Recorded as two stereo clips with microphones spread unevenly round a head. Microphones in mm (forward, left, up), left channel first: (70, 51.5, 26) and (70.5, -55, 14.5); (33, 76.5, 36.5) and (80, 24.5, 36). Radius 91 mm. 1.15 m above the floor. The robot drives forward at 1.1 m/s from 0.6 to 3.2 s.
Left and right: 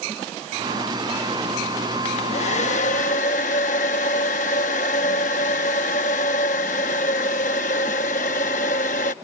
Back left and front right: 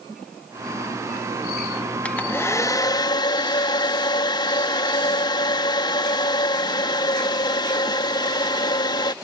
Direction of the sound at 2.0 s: 60° left.